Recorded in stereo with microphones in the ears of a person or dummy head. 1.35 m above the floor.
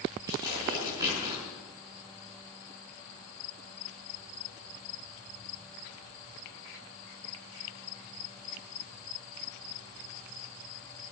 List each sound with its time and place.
0.3 s tearing paper: 25° right (ahead or behind), 6.5 m